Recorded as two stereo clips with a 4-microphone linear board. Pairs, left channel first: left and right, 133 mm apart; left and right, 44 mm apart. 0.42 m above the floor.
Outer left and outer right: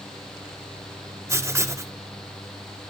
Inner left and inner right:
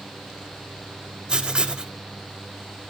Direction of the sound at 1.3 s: 20° right (ahead or behind).